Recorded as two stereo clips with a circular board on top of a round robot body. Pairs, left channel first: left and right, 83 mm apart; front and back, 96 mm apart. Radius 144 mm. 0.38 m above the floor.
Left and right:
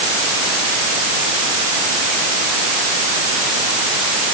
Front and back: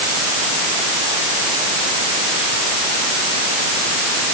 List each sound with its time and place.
Only background noise.